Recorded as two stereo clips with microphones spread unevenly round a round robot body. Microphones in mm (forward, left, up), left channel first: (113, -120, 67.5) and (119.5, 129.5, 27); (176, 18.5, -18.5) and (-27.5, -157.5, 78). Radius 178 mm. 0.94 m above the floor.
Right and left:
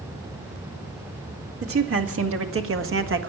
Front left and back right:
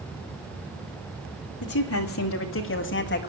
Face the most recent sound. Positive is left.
turn(degrees=70)